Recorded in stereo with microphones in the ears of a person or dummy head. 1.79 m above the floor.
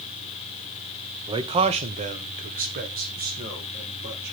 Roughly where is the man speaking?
Centre.